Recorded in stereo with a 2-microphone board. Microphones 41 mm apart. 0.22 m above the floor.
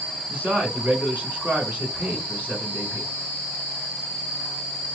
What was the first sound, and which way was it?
A man speaking, 35° right (ahead or behind).